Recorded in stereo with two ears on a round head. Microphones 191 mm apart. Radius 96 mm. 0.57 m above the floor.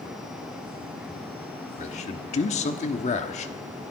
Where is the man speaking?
35° left (ahead or behind), 1.2 m.